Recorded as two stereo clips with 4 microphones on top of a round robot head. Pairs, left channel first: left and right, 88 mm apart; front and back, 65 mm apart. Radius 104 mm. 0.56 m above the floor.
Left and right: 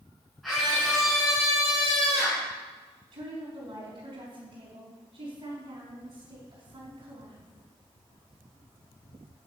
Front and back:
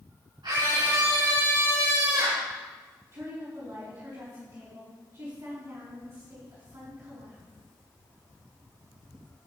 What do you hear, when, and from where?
0.4 s a scream: straight behind, 6.5 m
3.1 s a woman speaking: 125° right, 5 m